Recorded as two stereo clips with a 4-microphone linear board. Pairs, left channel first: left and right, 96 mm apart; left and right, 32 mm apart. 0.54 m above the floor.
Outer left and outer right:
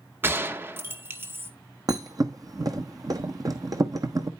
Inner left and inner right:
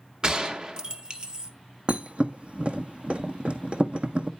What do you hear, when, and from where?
0.2 s a gunshot: 25° right (ahead or behind), 0.8 m
1.9 s a thud: 45° right (ahead or behind), 1.1 m